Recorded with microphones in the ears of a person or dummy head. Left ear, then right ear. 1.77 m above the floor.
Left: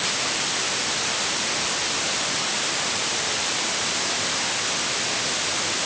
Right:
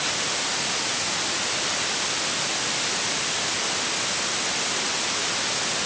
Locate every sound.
Only background noise.